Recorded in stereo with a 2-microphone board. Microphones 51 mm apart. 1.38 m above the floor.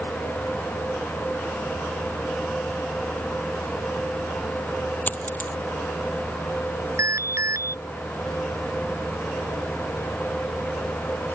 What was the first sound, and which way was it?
A dropped coin, 40° left (ahead or behind).